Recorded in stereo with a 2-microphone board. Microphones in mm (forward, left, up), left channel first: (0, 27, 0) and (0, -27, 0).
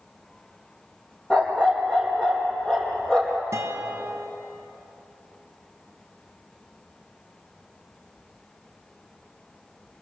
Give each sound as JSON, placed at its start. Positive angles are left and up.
{"t": 1.3, "sound": "a dog barking", "side_deg": 20, "distance_m": 4.0}
{"t": 3.5, "sound": "a guitar", "side_deg": -65, "distance_m": 1.6}